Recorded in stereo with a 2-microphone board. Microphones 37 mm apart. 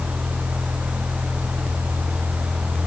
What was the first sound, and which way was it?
Only background noise.